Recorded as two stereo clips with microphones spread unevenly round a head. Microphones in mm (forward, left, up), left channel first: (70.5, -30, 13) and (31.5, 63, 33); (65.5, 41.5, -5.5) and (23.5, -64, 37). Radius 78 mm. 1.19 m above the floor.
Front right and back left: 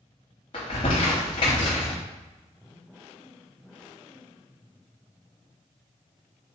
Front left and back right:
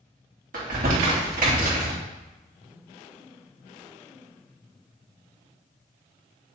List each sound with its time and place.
0.5 s crumpling: 115° right, 3 m